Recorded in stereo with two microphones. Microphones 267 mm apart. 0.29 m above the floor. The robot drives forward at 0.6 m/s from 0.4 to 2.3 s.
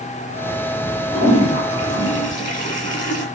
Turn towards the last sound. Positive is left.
turn(degrees=30)  # may be behind; listen again after turning